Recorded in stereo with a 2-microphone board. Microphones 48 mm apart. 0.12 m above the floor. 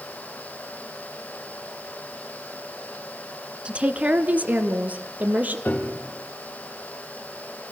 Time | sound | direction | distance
3.6 | a woman speaking | 25° right (ahead or behind) | 1.1 m
5.7 | a piano | 45° left (ahead or behind) | 3.5 m